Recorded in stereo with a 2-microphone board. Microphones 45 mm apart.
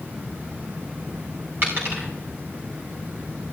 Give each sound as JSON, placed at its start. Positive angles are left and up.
{"t": 1.6, "sound": "a dropped coin", "side_deg": -50, "distance_m": 8.0}